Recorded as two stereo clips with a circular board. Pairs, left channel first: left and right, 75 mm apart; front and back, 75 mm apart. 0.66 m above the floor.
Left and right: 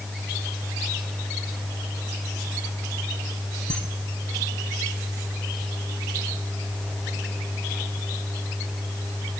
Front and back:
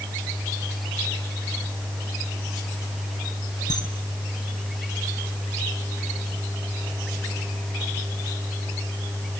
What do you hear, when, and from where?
3.7 s a camera shutter: 15° left, 4.5 m